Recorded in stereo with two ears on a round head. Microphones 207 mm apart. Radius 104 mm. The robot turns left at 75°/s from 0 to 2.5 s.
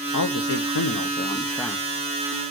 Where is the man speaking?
115° left, 1.0 m; by 1.9 s 15° right, 1.0 m.